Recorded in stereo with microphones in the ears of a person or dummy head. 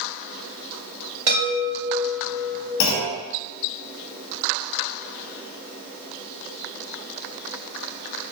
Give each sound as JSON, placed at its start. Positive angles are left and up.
{"t": 1.3, "sound": "a chime", "side_deg": -85, "distance_m": 2.0}
{"t": 2.8, "sound": "a clunk", "side_deg": 60, "distance_m": 0.6}